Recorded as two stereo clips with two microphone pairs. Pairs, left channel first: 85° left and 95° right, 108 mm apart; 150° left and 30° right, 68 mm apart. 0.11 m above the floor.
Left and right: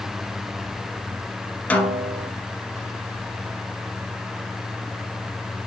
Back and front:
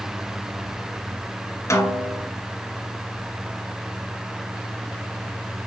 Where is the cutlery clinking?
No cutlery clinking in this recording.